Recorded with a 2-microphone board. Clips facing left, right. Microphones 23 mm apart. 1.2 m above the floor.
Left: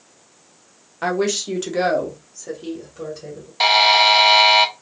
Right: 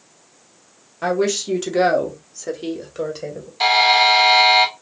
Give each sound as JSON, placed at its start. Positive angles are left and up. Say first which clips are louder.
{"t": 1.0, "sound": "a woman speaking", "louder": "right 1 dB", "side_deg": 20, "distance_m": 1.1}
{"t": 3.6, "sound": "a buzzer", "louder": "left 1 dB", "side_deg": 30, "distance_m": 0.7}